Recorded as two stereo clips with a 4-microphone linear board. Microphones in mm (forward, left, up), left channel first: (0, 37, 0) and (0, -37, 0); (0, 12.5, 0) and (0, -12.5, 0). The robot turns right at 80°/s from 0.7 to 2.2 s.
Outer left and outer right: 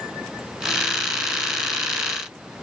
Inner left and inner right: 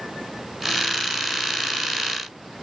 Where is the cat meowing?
I don't hear a cat meowing.